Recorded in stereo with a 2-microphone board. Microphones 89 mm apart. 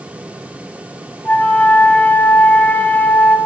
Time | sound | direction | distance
1.2 | a flute | 15° left (ahead or behind) | 1.0 m